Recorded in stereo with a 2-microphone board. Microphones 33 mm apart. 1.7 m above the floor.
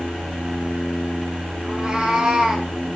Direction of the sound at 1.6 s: 25° right (ahead or behind).